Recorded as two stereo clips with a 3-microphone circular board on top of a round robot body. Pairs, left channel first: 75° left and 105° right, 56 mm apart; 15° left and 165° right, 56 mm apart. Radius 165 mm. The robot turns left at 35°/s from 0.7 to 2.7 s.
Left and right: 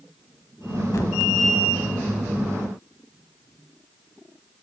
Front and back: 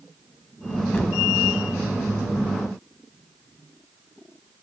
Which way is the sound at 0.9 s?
80° left.